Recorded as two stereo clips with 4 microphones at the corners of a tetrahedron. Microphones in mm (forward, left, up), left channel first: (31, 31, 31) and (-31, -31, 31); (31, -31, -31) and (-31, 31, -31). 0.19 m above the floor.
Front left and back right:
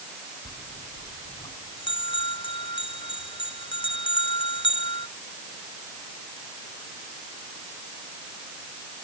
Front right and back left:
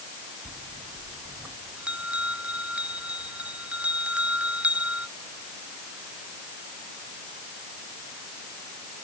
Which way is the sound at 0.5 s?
60° left.